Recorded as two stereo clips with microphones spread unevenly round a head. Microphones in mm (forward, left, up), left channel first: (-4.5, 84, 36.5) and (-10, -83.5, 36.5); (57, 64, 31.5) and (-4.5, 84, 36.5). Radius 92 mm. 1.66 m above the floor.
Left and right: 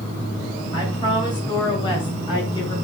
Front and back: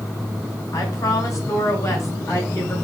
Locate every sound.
0.7 s a woman speaking: 20° left, 6.5 m; by 2.8 s 25° left, 8 m